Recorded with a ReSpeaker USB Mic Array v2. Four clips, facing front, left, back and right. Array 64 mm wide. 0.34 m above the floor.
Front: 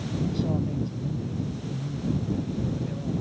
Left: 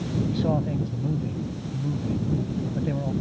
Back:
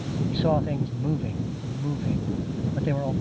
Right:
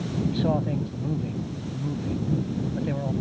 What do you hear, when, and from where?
0.3 s a man speaking: 170° right